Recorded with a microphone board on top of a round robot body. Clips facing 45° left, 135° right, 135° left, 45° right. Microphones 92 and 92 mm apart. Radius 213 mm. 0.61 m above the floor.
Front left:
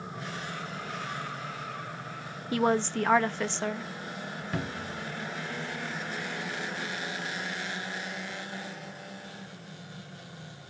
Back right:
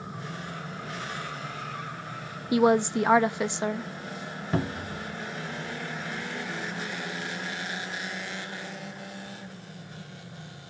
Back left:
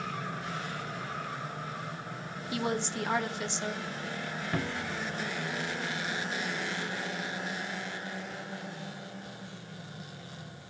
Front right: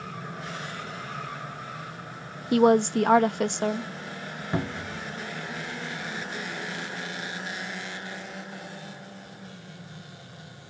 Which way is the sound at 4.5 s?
100° right.